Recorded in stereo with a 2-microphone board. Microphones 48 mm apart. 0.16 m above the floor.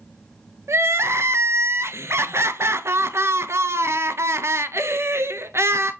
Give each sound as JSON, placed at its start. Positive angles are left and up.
{"t": 0.7, "sound": "crying", "side_deg": -65, "distance_m": 0.7}